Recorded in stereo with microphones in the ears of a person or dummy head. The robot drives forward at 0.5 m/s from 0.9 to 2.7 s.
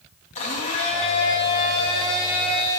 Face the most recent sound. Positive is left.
turn(degrees=25)  # may be behind; listen again after turning